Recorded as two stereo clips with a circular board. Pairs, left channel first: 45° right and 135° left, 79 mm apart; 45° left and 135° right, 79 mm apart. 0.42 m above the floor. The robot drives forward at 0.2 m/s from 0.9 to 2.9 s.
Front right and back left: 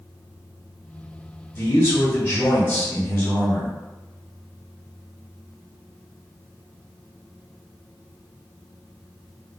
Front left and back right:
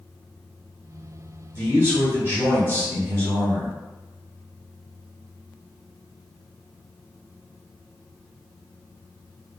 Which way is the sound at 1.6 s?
105° right.